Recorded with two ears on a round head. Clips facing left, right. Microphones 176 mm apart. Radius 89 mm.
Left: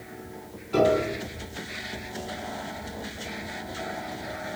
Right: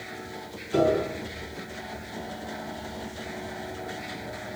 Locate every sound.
0.7 s a piano: 5° right (ahead or behind), 4.5 m